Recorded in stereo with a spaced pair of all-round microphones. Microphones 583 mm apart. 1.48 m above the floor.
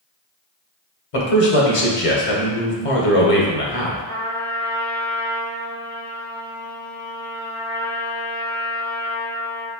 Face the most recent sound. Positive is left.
turn(degrees=20)  # may be behind; listen again after turning